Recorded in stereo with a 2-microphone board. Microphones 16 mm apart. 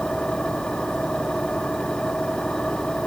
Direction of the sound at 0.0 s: 65° left (ahead or behind).